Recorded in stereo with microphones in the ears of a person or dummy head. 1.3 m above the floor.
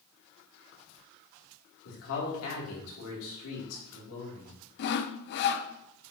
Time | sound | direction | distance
1.9 | a man speaking | 85° left | 3.5 m
4.8 | sawing | 55° left (ahead or behind) | 0.7 m